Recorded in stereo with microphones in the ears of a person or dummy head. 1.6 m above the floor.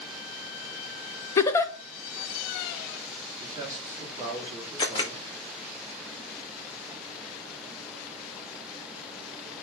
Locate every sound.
1.4 s a giggle: 20° left (ahead or behind), 0.5 m
3.4 s a man speaking: 15° right (ahead or behind), 3.5 m
4.8 s a camera shutter: 25° left (ahead or behind), 1.3 m